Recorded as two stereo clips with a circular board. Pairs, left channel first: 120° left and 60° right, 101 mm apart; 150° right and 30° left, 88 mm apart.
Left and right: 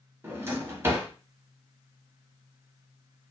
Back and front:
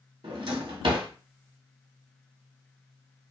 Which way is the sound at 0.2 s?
5° left.